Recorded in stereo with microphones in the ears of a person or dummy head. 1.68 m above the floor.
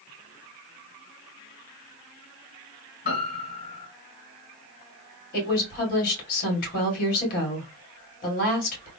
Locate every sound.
3.0 s a piano: 45° left (ahead or behind), 2.5 m
5.3 s a woman speaking: 50° left (ahead or behind), 2 m